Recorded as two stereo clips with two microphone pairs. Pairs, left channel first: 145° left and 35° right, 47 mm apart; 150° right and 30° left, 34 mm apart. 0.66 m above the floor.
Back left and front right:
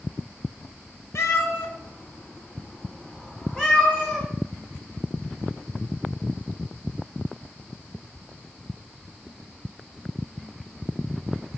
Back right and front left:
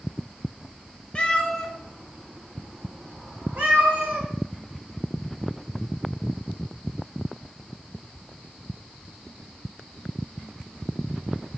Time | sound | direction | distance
1.1 | a cat meowing | 155° left | 0.7 m